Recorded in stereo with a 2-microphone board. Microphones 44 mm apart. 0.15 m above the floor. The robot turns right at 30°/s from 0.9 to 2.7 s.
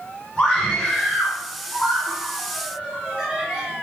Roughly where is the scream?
Centre.